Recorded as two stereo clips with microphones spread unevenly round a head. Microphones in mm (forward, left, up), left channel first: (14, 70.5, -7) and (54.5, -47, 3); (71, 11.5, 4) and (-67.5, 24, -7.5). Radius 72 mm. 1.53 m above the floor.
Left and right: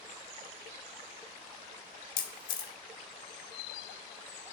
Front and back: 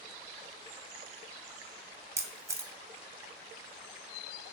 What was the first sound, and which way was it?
A camera shutter, 115° left.